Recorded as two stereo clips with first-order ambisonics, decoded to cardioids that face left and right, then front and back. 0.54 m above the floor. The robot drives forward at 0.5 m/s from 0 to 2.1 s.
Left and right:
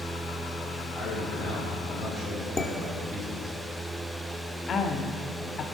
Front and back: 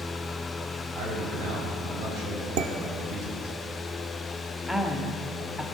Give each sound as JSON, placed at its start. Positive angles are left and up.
{"t": 0.9, "sound": "a man speaking", "azimuth_deg": -155, "distance_m": 4.5}
{"t": 2.6, "sound": "dishes clattering", "azimuth_deg": 170, "distance_m": 0.8}
{"t": 4.7, "sound": "a woman speaking", "azimuth_deg": 95, "distance_m": 1.0}